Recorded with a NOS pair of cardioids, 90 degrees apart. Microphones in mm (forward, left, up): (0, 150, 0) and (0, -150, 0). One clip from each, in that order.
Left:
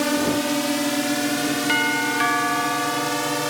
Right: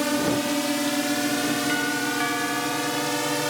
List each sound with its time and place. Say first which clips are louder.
0.0 s a drone: left 2 dB; 20° left; by 3.5 s 10° left
1.7 s a doorbell: left 4 dB; 40° left